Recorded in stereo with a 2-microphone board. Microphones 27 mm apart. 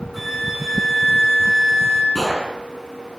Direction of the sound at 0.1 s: Centre (ahead or behind).